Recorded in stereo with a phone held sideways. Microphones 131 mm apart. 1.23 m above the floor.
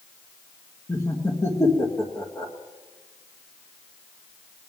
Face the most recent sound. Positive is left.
turn(degrees=20)  # may be behind; listen again after turning